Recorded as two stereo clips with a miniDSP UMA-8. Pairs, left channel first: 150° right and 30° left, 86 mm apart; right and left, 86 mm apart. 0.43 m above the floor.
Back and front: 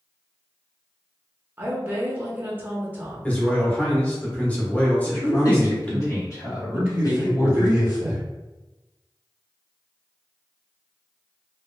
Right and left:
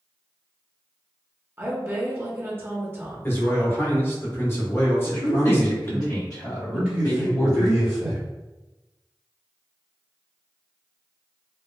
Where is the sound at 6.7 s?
65° left, 1.1 m.